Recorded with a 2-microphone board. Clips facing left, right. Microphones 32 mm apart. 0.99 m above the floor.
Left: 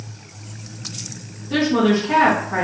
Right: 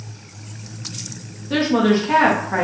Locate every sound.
1.5 s a woman speaking: 35° right (ahead or behind), 0.9 m